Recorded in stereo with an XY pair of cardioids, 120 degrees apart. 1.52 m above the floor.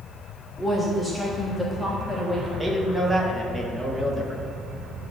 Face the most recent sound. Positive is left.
turn(degrees=-20)